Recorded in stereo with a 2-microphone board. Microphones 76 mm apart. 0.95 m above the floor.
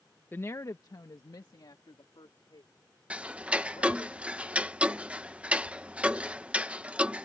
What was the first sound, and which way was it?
A woman speaking, 25° left (ahead or behind).